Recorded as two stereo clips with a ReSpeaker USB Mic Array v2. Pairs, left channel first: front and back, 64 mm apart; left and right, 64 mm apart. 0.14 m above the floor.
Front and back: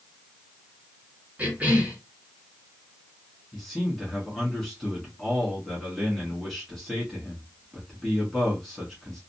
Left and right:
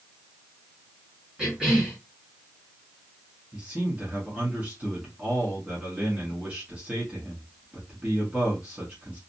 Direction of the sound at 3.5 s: 80° right.